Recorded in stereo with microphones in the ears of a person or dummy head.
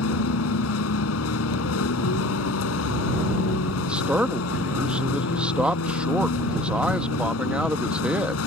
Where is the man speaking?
5° right (ahead or behind).